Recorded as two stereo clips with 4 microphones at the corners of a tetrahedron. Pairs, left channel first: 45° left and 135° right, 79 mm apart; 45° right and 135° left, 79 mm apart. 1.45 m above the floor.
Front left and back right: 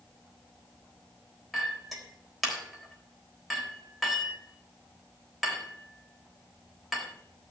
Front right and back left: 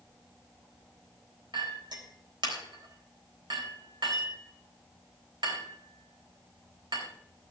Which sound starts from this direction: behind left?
A clink, at 1.5 s.